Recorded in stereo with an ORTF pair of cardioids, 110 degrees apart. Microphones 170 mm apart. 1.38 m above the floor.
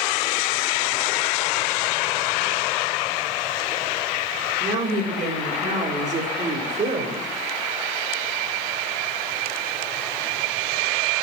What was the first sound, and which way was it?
A woman speaking, 55° right.